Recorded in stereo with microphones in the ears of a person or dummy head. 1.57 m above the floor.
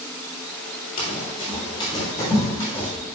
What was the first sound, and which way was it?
Running footsteps, 40° left (ahead or behind).